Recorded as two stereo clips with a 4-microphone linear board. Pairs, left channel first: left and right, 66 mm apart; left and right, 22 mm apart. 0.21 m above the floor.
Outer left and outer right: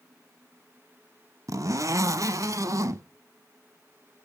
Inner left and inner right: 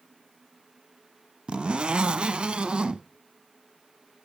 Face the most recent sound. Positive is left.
turn(degrees=-55)  # may be behind; listen again after turning